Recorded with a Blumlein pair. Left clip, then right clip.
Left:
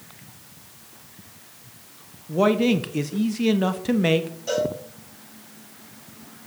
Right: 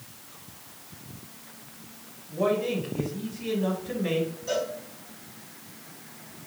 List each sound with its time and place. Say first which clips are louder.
2.3 s a man speaking: left 6 dB; 40° left, 1.0 m
4.5 s a cowbell: left 7 dB; 30° left, 5.5 m